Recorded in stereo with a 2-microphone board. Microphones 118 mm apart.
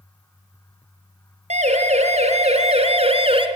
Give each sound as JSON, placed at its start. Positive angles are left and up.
{"t": 1.5, "sound": "a siren", "side_deg": -70, "distance_m": 5.5}